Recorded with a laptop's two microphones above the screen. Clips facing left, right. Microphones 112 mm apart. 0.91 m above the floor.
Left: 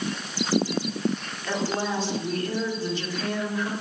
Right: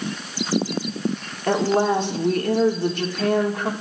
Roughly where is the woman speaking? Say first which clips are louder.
Right 8 dB; right.